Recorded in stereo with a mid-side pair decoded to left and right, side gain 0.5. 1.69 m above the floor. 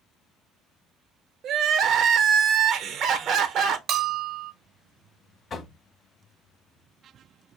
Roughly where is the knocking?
Ahead left.